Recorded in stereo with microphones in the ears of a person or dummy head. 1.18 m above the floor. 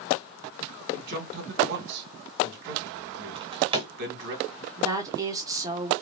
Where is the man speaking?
60° right (ahead or behind), 2.5 m.